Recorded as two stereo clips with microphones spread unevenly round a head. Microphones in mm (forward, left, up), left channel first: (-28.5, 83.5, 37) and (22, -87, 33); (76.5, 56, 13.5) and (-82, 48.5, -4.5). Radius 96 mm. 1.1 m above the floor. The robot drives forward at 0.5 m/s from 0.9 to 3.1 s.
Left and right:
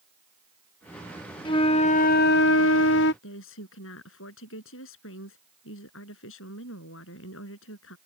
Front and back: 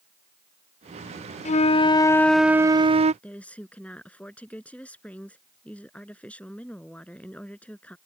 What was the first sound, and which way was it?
A flute, 40° left.